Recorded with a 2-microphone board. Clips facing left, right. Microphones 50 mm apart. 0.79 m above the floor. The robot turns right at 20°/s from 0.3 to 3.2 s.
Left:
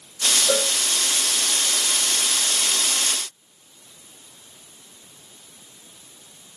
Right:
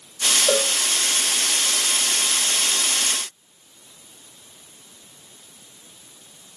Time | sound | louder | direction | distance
0.5 | a cowbell | right 2 dB | 50° right (ahead or behind) | 6.5 m